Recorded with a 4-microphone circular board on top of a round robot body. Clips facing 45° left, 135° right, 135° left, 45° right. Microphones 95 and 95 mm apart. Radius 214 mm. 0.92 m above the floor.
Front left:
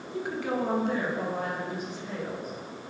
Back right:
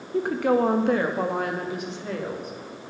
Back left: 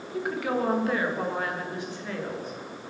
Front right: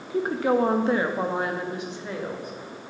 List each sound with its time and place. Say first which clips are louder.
0.1 s a woman speaking: back right 9 dB, front right 6 dB; 95° right, 1.5 m; by 2.5 s 120° right, 3 m